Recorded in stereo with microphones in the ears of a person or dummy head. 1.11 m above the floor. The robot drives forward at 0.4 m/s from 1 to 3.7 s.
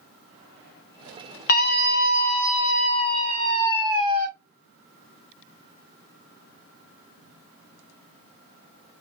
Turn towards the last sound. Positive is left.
turn(degrees=20)  # may be behind; listen again after turning